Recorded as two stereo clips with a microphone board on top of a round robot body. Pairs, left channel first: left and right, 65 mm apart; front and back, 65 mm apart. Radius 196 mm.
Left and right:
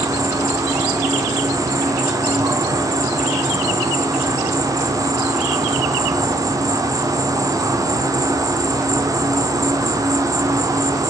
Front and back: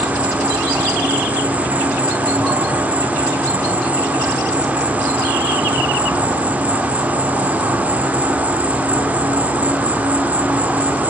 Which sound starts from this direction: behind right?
An insect, at 0.0 s.